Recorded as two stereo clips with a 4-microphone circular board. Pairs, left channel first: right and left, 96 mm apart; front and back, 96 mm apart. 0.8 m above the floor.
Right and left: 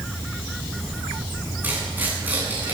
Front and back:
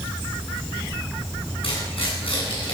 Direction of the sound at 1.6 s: 15° left.